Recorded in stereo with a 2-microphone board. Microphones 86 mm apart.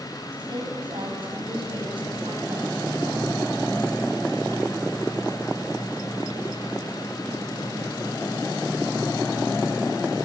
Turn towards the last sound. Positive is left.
turn(degrees=-80)